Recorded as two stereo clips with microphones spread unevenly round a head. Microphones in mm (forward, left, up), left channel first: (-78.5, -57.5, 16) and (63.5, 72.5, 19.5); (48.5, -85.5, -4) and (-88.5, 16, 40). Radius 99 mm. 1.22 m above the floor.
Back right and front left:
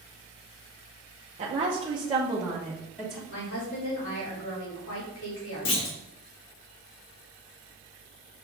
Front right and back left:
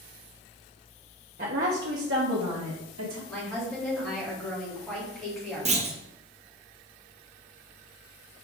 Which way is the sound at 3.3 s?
120° right.